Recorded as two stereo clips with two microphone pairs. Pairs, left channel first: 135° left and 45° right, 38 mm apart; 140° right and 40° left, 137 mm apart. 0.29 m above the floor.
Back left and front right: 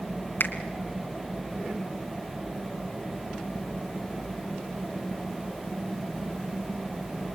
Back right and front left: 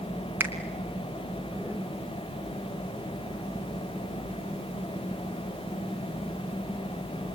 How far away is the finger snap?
About 2 m.